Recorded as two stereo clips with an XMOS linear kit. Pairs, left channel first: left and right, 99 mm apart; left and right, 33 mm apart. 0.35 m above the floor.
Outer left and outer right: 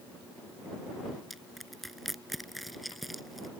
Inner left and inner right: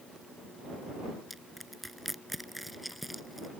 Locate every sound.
1.3 s crushing: centre (ahead or behind)